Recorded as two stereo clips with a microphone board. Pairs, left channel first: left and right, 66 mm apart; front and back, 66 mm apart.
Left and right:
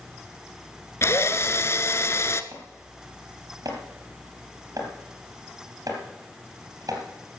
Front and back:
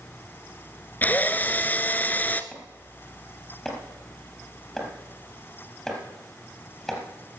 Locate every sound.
1.0 s a drill: 55° left, 0.8 m
2.5 s chopping: 85° right, 3.5 m